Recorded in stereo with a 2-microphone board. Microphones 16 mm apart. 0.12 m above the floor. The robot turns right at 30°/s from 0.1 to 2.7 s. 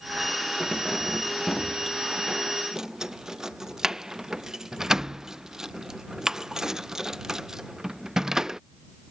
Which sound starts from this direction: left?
Keys jangling, at 0.6 s.